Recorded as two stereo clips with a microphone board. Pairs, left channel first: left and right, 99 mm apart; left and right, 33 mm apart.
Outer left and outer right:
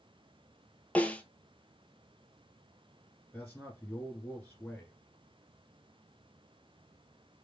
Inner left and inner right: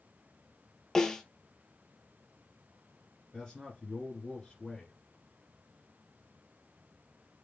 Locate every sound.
0.9 s a snare drum: 15° left (ahead or behind), 0.6 m
3.3 s a man speaking: 15° left (ahead or behind), 1.6 m